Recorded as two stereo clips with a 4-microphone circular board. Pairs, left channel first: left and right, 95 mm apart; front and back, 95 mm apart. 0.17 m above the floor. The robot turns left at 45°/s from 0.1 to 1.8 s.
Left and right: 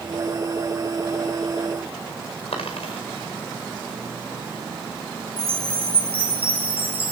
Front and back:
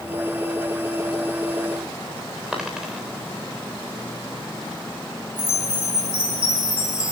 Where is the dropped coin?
95° left, 4.5 m.